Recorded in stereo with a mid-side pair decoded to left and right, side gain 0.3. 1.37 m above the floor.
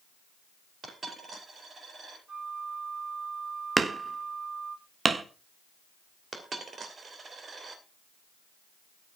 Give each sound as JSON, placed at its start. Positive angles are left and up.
{"t": 0.8, "sound": "a dropped coin", "azimuth_deg": -65, "distance_m": 10.0}
{"t": 2.3, "sound": "a flute", "azimuth_deg": -45, "distance_m": 1.7}
{"t": 3.8, "sound": "hammering", "azimuth_deg": -50, "distance_m": 1.2}
{"t": 6.3, "sound": "a dropped coin", "azimuth_deg": -60, "distance_m": 2.5}